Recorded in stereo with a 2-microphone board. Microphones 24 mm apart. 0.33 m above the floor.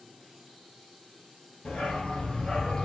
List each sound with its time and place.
1.6 s a dog barking: 50° left (ahead or behind), 2.0 m; by 2.9 s 35° left (ahead or behind), 1.5 m